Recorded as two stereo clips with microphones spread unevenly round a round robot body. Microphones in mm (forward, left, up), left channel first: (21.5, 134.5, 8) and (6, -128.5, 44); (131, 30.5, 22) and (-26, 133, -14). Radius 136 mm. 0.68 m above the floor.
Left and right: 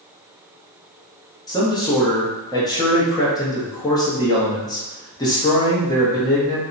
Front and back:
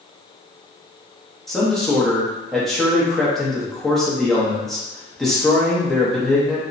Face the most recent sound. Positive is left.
turn(degrees=85)